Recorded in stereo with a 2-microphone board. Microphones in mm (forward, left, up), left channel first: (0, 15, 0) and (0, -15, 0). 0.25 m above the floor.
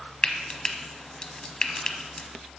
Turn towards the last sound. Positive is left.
turn(degrees=25)  # may be behind; listen again after turning